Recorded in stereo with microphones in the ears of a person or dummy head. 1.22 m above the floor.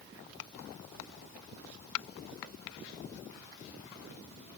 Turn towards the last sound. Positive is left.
No sound to turn to.